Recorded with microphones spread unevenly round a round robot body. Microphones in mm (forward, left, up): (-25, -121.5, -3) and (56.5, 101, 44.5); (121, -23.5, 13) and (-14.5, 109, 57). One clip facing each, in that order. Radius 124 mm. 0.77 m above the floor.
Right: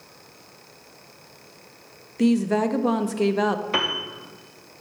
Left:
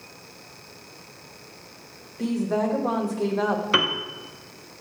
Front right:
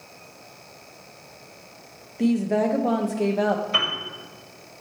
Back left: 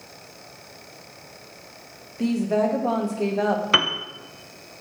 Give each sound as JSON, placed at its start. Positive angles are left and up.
{"t": 2.2, "sound": "a woman speaking", "azimuth_deg": -115, "distance_m": 0.5}
{"t": 3.7, "sound": "a piano", "azimuth_deg": 145, "distance_m": 0.5}